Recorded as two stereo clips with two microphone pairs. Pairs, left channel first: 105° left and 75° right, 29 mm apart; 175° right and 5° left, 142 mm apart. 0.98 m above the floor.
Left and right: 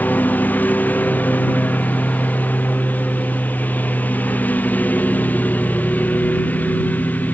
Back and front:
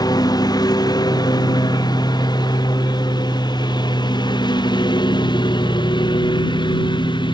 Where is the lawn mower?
125° left; by 7.3 s 130° left.